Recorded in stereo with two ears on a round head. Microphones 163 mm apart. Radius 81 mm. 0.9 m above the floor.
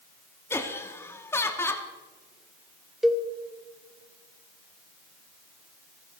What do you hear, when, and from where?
0.5 s laughter: 15° left (ahead or behind), 1.3 m
3.0 s a cowbell: 5° right (ahead or behind), 0.8 m